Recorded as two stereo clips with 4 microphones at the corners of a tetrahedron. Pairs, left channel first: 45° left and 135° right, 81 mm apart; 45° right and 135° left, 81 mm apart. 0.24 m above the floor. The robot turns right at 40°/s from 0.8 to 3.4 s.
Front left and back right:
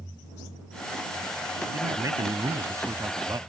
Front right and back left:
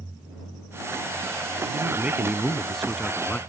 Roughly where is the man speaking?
Behind.